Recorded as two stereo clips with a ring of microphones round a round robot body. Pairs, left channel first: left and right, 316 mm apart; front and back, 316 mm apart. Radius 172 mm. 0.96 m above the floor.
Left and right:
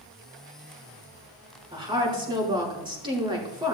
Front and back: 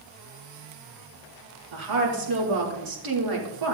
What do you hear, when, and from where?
1.7 s a woman speaking: 165° right, 3 m